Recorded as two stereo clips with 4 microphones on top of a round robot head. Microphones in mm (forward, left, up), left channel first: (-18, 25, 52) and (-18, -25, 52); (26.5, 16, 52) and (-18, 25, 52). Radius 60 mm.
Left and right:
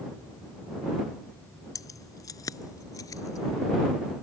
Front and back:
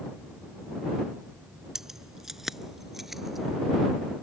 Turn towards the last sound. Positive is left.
turn(degrees=80)